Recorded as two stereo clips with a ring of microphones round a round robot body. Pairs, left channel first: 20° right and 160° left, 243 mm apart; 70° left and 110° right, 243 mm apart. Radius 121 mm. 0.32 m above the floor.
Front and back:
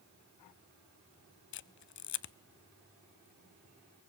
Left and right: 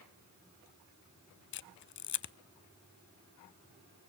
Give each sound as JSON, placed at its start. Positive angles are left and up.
{"t": 1.5, "sound": "a camera shutter", "azimuth_deg": 20, "distance_m": 0.6}